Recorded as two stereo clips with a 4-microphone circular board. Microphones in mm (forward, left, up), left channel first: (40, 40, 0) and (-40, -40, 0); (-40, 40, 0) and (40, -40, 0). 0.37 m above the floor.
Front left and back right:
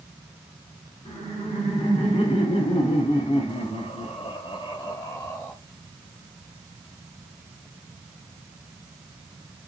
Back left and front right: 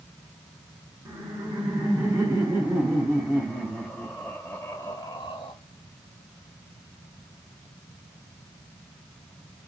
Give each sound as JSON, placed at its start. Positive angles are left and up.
{"t": 1.1, "sound": "laughter", "azimuth_deg": 5, "distance_m": 4.0}